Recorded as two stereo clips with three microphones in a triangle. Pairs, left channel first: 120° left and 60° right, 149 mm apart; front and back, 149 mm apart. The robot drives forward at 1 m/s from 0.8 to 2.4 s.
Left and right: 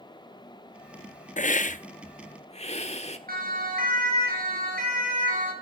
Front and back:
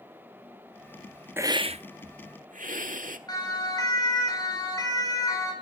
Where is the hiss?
110° left, 0.6 m; by 3.2 s 160° left, 1.3 m.